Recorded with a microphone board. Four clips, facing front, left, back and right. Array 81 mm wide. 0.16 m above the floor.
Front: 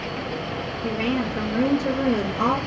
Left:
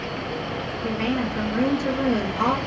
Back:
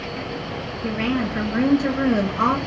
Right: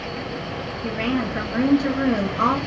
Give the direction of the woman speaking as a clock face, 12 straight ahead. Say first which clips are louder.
Right 1 dB, back 2 dB; 5 o'clock.